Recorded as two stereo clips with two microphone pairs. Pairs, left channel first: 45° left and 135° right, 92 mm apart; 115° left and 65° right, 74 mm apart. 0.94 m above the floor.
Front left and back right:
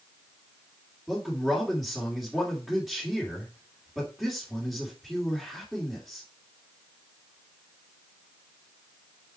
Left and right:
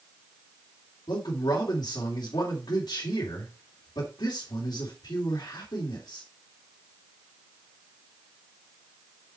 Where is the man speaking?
140° left, 2.5 m.